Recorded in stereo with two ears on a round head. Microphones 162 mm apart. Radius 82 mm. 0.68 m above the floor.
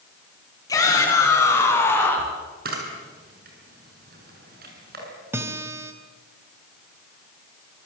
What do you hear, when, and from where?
0.7 s a shout: 20° left (ahead or behind), 7.5 m; by 2.3 s 10° left (ahead or behind), 6.5 m
2.6 s a camera shutter: 50° right (ahead or behind), 7 m
5.3 s a guitar: 15° right (ahead or behind), 2 m